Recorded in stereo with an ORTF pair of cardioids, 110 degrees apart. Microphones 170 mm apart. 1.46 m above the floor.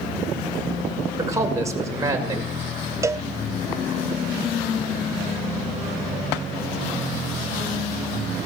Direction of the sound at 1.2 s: 20° right.